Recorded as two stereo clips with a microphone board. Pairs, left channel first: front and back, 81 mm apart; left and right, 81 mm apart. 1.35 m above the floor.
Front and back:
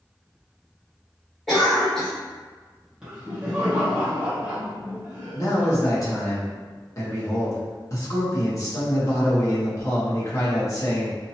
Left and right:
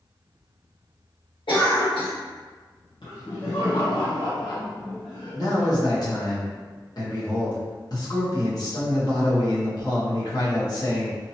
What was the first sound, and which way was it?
A cough, 85° left.